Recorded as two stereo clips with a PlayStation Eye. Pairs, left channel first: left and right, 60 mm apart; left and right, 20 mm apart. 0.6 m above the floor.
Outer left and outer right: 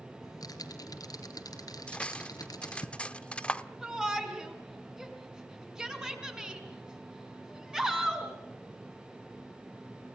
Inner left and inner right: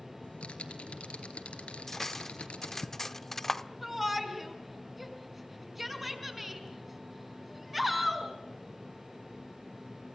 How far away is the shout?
About 5 m.